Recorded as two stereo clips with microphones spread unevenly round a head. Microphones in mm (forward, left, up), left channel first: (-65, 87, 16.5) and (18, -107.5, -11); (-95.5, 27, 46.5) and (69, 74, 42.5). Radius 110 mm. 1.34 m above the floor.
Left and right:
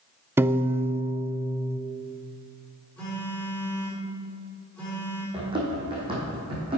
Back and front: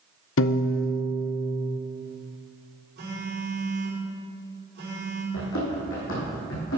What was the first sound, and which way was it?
A piano, 150° right.